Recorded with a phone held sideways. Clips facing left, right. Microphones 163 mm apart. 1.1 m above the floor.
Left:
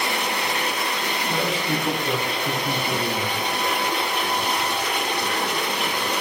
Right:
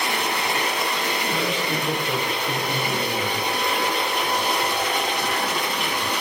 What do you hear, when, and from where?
1.3 s a man speaking: 80° left, 9 m